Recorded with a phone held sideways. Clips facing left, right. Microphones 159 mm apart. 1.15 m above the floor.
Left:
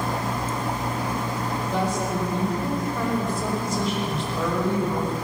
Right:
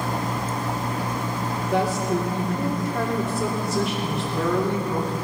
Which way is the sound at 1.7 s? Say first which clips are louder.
Right 4 dB; 75° right (ahead or behind).